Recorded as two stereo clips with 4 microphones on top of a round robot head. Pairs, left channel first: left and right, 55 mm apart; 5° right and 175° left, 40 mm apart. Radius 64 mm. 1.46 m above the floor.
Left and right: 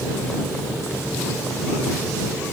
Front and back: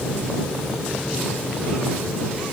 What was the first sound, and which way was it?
Only background noise.